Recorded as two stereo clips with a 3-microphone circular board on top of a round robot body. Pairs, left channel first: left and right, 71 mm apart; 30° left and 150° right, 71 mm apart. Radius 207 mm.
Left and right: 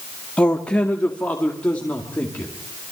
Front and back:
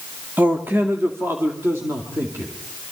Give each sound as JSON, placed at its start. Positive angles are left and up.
{"t": 0.4, "sound": "a man speaking", "azimuth_deg": 160, "distance_m": 1.7}